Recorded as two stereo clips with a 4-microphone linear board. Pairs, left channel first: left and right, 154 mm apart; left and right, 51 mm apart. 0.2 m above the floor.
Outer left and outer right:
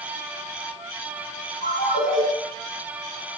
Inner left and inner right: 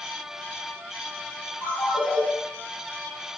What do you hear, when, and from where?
1.6 s a ringtone: 40° right (ahead or behind), 1.6 m